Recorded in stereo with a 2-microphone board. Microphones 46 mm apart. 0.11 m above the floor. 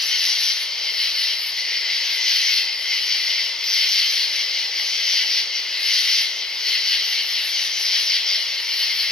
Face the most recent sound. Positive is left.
turn(degrees=15)  # may be behind; listen again after turning